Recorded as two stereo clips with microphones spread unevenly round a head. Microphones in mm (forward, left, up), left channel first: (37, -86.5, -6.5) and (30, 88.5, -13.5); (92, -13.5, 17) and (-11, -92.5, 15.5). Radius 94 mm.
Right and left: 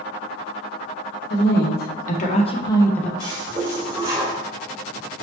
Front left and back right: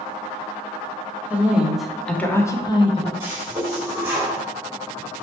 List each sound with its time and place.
1.3 s a woman speaking: 65° right, 1.3 m; by 3.1 s straight ahead, 0.8 m
3.2 s a toilet flushing: 155° left, 1.3 m